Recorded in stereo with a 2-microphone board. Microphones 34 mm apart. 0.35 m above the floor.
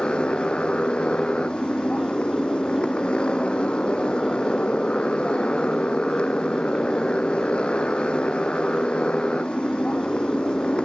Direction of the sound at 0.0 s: 30° left (ahead or behind).